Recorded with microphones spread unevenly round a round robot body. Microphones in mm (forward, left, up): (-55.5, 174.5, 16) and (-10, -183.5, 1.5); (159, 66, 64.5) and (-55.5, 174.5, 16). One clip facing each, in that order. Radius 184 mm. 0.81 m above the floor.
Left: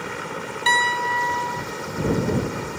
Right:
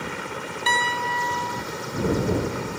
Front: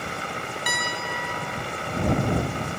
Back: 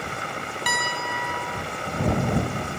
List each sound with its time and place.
0.7 s a piano: 155° left